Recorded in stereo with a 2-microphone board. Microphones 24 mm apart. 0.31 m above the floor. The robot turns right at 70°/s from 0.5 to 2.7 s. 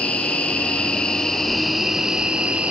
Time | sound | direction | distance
0.0 | an insect | 95° left | 3 m